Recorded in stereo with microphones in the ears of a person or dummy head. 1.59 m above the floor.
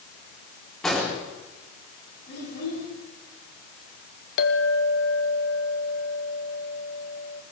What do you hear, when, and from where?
0.8 s an explosion: 5° left (ahead or behind), 3.5 m
2.3 s a child speaking: 65° left (ahead or behind), 9.5 m
4.4 s a clink: 60° left (ahead or behind), 1.4 m